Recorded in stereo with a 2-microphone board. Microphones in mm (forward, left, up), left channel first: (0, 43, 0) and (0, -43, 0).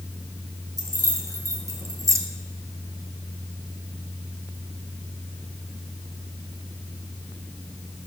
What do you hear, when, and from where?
0.8 s keys jangling: 40° right (ahead or behind), 3 m; by 2.2 s 35° right (ahead or behind), 1.5 m